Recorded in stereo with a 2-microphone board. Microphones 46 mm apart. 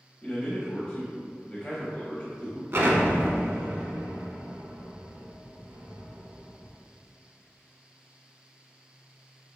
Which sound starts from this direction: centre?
A man speaking, at 0.2 s.